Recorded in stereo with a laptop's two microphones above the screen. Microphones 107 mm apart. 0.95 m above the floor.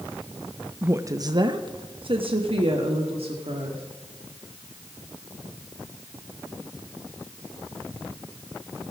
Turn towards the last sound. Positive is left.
turn(degrees=-65)  # may be behind; listen again after turning